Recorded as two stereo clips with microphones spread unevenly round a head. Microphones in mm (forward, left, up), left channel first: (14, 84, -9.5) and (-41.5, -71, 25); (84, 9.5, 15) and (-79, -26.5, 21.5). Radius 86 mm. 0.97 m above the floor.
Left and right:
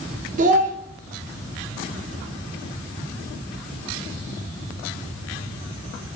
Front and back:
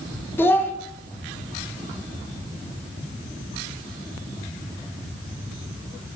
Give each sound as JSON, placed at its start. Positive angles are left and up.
{"t": 0.4, "sound": "a child speaking", "azimuth_deg": -60, "distance_m": 0.5}